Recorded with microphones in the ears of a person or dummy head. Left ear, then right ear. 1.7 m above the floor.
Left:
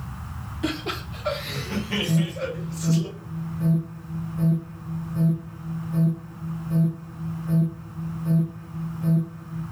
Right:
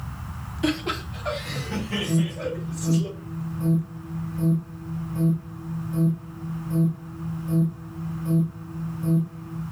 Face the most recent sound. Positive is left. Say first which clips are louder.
# even
turn(degrees=5)  # may be behind; listen again after turning